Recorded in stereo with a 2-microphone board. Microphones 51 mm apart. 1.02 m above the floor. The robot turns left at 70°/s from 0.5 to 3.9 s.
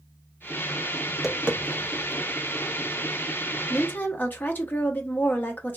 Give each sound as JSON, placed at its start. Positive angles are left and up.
{"t": 1.1, "sound": "tapping", "side_deg": 5, "distance_m": 0.7}
{"t": 3.7, "sound": "a woman speaking", "side_deg": 45, "distance_m": 0.9}